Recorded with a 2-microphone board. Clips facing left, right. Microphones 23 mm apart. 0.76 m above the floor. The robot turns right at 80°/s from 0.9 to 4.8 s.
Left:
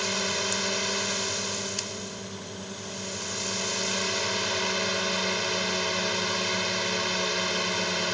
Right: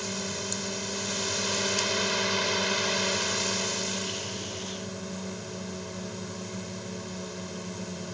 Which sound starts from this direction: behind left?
A drone, at 0.0 s.